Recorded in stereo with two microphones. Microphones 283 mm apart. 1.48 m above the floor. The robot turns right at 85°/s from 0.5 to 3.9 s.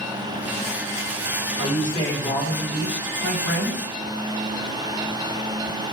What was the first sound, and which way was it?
A man speaking, 125° left.